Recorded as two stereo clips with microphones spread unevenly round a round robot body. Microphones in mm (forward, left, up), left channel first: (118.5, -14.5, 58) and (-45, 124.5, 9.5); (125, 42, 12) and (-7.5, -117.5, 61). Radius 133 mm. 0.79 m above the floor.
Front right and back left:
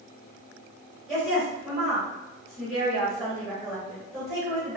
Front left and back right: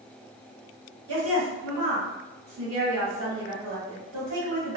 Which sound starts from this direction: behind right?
A woman speaking, at 1.1 s.